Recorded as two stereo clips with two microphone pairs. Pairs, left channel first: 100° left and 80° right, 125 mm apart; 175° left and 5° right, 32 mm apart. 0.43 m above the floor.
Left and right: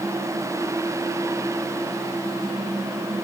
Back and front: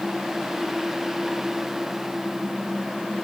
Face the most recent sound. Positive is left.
No sound to turn to.